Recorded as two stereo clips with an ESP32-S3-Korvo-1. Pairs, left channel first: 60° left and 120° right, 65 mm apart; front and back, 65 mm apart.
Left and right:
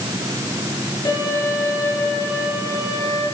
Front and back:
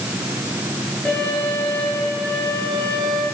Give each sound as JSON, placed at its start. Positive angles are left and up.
{"t": 1.1, "sound": "a violin", "azimuth_deg": 75, "distance_m": 5.0}